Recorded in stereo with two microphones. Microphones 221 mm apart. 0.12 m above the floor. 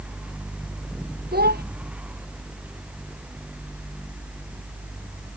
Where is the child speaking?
45° right (ahead or behind).